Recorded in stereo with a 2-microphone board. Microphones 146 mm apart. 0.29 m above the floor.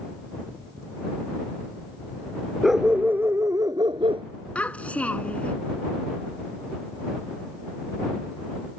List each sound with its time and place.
2.6 s a dog barking: centre (ahead or behind); by 4.2 s 40° right (ahead or behind)
4.5 s a child speaking: 10° left (ahead or behind)